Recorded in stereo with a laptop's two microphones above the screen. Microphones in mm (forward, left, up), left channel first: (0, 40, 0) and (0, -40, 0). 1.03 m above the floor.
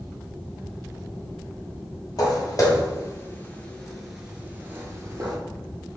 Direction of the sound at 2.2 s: 55° left (ahead or behind).